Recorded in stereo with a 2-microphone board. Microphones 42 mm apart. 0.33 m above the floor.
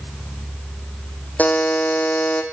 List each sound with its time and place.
1.4 s a buzzer: 40° left (ahead or behind), 4 m